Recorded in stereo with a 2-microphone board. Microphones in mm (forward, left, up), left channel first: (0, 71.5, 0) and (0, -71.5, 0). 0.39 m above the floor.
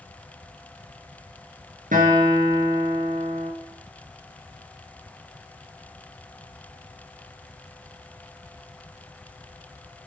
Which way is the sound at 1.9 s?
75° right (ahead or behind).